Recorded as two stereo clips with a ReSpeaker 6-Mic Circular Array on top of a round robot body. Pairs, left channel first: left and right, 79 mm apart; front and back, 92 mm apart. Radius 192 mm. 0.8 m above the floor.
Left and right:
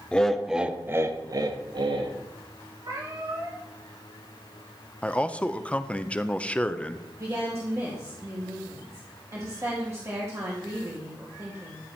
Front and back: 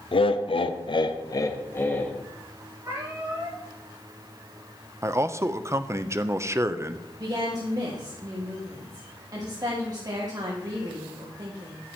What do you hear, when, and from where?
0.1 s laughter: 15° left, 1.1 m; by 2.1 s 70° right, 1.5 m
2.8 s a cat meowing: 125° right, 5 m
5.0 s a man speaking: 155° left, 0.8 m
7.2 s a woman speaking: 140° right, 1.9 m